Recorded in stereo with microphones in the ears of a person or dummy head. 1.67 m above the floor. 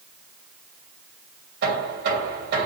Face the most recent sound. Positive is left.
turn(degrees=-55)  # may be behind; listen again after turning